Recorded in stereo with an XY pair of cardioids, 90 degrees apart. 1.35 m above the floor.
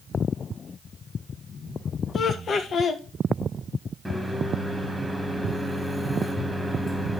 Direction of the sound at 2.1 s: 60° left.